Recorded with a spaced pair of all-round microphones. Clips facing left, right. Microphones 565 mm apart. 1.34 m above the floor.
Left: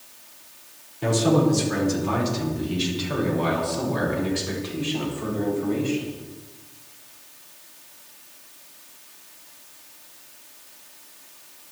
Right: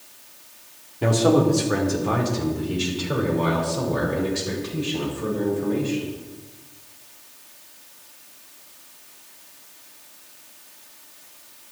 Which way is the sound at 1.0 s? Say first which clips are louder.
Right 2 dB; 75° right (ahead or behind).